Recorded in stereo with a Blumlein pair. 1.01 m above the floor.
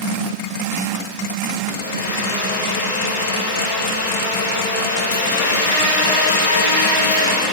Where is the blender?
65° left, 2.5 m.